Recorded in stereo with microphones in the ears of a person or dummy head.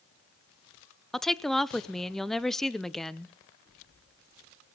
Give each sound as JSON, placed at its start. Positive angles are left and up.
{"t": 1.1, "sound": "a woman speaking", "side_deg": 0, "distance_m": 0.7}